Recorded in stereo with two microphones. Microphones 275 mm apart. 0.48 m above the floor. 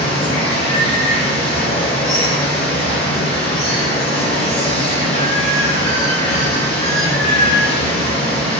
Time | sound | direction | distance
0.0 | running water | 20° left (ahead or behind) | 1.4 m